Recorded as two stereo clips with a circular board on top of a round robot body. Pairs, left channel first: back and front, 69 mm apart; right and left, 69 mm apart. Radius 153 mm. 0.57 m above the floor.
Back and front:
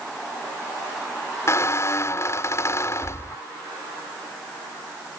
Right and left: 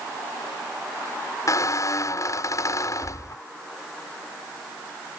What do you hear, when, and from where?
1.5 s a squeak: 130° right